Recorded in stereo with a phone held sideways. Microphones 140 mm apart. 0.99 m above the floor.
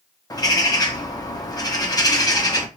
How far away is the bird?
About 0.6 m.